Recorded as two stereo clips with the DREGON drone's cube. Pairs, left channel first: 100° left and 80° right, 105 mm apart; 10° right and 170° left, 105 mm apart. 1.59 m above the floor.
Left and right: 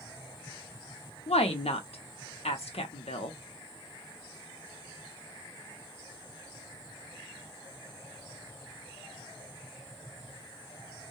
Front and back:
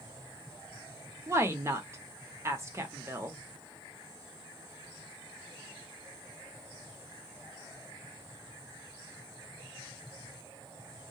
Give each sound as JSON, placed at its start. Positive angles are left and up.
{"t": 1.3, "sound": "a woman speaking", "azimuth_deg": 110, "distance_m": 0.7}